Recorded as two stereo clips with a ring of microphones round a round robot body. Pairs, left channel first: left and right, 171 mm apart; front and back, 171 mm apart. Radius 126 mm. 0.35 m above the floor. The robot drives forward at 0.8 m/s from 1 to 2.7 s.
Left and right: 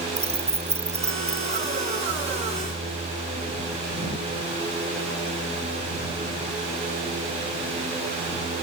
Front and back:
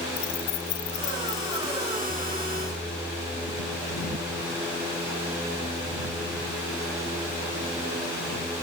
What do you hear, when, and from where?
0.2 s keys jangling: 40° right